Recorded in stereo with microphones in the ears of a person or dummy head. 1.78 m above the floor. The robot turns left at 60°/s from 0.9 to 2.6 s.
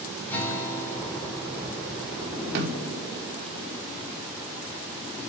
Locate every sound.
0.3 s a guitar: 10° left, 6 m; by 2.2 s 70° right, 6 m
2.5 s a snare drum: 55° right (ahead or behind), 4.5 m